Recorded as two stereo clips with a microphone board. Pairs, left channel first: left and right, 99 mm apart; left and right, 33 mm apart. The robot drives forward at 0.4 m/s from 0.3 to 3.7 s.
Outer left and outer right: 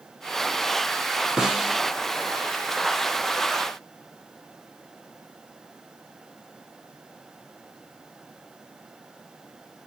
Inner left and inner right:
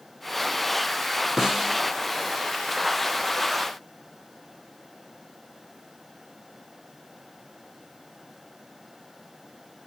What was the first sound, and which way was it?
A snare drum, 5° right (ahead or behind).